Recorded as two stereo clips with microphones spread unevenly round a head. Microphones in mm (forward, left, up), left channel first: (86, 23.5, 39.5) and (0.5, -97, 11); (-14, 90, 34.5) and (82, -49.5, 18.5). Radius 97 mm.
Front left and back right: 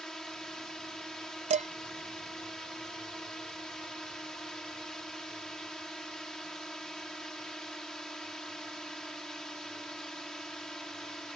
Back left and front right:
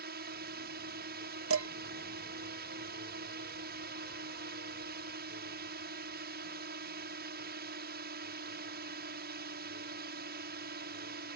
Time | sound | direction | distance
0.0 | a drone | 35° right | ?
1.5 | dishes clattering | 80° right | ?